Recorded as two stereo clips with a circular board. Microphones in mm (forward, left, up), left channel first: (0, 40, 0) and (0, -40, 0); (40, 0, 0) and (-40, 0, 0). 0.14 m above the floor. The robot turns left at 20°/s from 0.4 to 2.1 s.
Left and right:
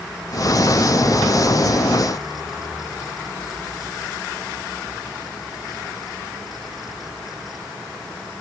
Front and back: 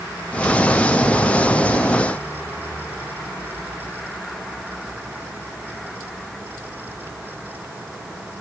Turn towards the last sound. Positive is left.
No sound to turn to.